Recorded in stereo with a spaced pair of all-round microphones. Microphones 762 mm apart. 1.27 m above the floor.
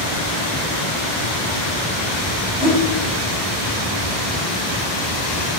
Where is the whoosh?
60° left (ahead or behind), 3 m.